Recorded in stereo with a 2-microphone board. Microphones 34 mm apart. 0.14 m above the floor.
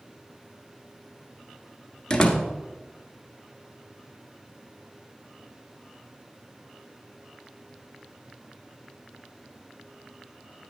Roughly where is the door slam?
Left.